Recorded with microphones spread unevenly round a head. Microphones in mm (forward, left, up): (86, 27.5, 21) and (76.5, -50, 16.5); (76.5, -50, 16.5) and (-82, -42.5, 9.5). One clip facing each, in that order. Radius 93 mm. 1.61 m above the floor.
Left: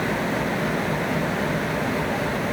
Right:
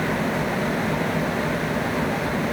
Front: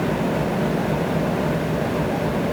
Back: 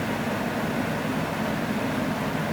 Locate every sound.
0.0 s an engine running: 10° right